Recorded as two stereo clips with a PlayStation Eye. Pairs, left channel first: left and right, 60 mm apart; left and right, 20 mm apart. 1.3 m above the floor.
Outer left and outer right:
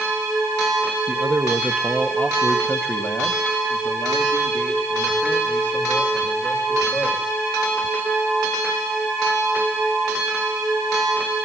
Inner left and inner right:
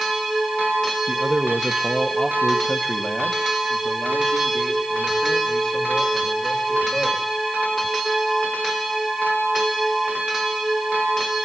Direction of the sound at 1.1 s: 35° right (ahead or behind).